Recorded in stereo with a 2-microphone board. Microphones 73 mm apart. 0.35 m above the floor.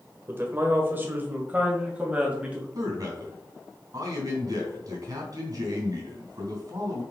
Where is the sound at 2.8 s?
50° right (ahead or behind), 3 m.